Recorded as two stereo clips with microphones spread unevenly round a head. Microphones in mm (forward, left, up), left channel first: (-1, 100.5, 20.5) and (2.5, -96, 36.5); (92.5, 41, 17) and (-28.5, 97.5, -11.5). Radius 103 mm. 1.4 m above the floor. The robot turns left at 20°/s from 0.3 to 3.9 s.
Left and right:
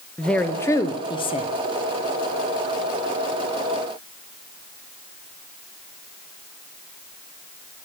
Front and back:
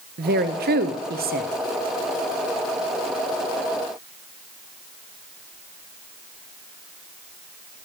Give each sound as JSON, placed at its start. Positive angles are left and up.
{"t": 0.2, "sound": "a woman speaking", "azimuth_deg": 175, "distance_m": 0.7}